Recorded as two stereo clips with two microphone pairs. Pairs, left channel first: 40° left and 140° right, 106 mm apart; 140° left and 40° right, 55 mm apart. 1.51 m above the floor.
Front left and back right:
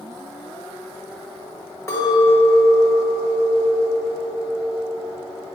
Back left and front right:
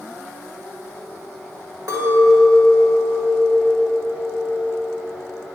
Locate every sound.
1.9 s a clink: 25° right, 1.8 m